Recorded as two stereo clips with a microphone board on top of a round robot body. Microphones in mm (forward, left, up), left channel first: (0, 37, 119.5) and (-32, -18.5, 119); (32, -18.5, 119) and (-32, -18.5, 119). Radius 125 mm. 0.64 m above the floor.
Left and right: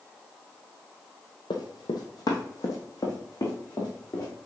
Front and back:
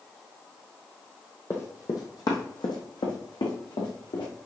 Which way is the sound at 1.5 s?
55° left.